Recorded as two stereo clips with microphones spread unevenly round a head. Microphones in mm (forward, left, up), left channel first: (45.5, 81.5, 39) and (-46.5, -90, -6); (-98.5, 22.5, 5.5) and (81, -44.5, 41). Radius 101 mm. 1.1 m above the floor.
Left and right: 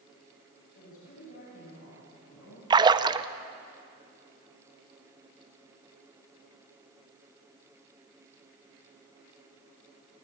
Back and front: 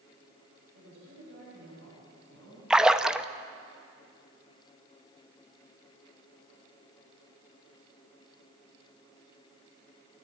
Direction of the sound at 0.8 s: 15° left.